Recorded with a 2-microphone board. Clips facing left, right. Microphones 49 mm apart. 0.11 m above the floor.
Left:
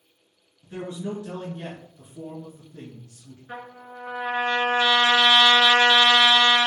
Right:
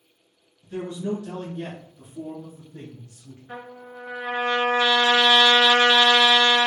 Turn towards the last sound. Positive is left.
turn(degrees=20)  # may be behind; listen again after turning